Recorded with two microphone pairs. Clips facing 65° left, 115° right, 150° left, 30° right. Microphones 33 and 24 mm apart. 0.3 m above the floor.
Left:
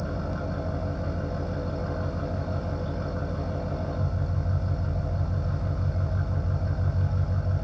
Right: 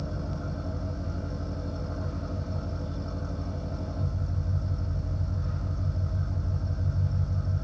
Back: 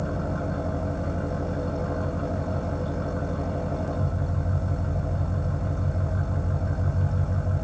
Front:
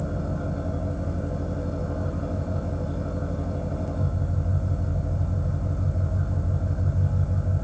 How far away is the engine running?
About 6.5 m.